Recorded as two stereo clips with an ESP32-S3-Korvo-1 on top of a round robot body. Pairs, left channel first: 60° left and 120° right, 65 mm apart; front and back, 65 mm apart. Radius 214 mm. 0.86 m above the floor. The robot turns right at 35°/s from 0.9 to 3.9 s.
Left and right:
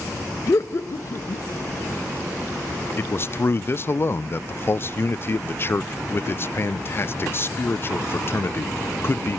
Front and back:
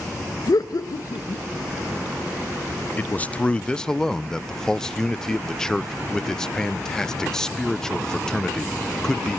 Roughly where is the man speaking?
Ahead left.